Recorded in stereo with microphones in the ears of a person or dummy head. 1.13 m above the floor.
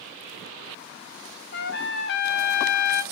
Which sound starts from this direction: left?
A trumpet, at 1.5 s.